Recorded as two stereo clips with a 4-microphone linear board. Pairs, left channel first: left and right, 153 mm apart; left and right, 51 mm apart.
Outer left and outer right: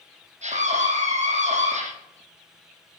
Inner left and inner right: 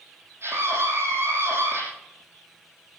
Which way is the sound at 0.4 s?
55° right (ahead or behind).